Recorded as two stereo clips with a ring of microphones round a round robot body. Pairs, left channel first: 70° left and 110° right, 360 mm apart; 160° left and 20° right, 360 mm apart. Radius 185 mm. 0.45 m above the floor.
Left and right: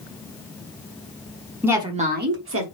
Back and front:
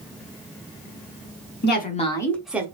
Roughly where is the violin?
I don't hear a violin.